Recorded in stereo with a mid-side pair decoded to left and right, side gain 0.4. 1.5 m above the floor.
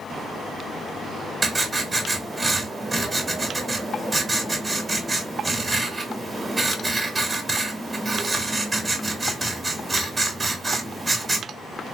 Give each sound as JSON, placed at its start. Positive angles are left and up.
{"t": 1.4, "sound": "writing", "azimuth_deg": -25, "distance_m": 1.2}